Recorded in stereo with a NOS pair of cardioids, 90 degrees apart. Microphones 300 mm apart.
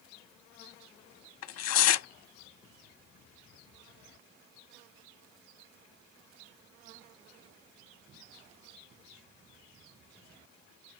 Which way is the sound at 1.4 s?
60° left.